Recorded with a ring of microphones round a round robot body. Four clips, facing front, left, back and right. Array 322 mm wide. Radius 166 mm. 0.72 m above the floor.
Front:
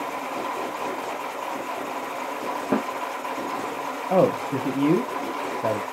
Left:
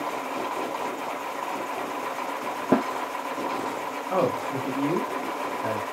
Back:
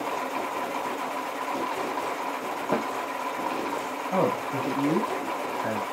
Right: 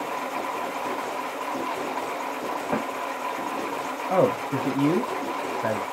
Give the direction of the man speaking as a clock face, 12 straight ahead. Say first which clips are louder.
Right 3 dB, front 6 dB; 1 o'clock.